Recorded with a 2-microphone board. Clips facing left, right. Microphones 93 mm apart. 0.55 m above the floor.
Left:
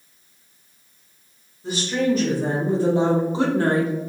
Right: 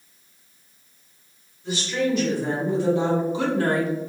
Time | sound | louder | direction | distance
1.6 | a woman speaking | left 3 dB | 45° left (ahead or behind) | 1.9 m